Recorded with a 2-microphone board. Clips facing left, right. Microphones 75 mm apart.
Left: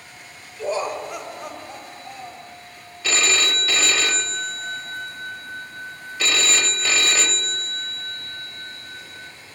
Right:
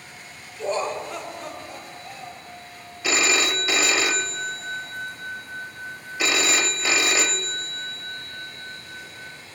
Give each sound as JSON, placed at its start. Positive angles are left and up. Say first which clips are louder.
{"t": 0.6, "sound": "laughter", "louder": "left 1 dB", "side_deg": 5, "distance_m": 1.0}
{"t": 3.0, "sound": "a phone ringing", "louder": "even", "side_deg": -10, "distance_m": 0.6}